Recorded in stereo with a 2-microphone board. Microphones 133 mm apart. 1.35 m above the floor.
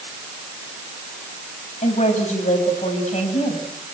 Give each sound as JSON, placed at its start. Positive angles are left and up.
{"t": 1.8, "sound": "a woman speaking", "side_deg": 70, "distance_m": 7.0}